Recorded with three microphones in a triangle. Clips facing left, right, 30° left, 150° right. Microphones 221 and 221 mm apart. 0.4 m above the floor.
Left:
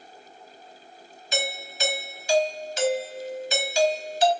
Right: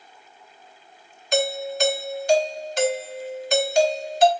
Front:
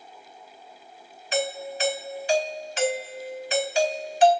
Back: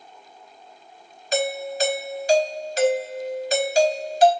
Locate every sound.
1.3 s a doorbell: 110° right, 3 m